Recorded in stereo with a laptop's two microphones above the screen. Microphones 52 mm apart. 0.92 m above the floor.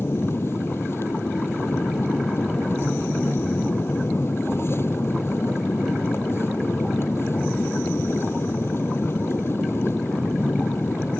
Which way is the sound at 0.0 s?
55° left (ahead or behind).